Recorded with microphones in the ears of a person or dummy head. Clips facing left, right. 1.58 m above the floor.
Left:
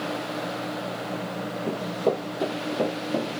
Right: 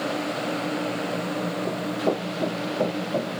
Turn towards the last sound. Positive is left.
turn(degrees=10)  # may be behind; listen again after turning